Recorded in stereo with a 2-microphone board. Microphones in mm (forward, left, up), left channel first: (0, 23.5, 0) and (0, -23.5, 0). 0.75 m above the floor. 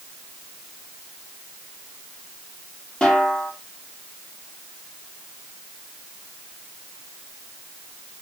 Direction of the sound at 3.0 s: 20° left (ahead or behind).